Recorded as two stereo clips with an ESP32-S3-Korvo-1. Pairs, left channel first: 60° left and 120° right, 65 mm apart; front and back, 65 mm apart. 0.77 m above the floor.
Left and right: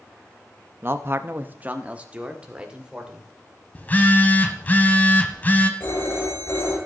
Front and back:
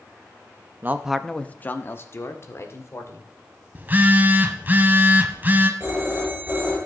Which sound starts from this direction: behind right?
A man speaking, at 0.8 s.